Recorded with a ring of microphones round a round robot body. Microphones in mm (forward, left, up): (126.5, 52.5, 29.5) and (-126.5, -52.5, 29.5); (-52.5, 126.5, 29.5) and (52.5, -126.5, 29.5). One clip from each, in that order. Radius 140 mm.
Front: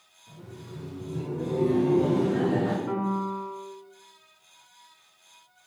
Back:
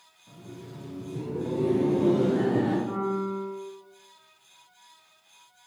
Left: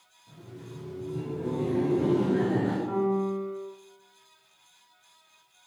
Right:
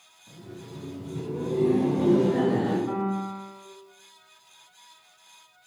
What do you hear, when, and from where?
0.3 s laughter: 80° right, 1.6 m; by 2.8 s 70° right, 2.5 m
2.9 s a piano: 10° right, 0.8 m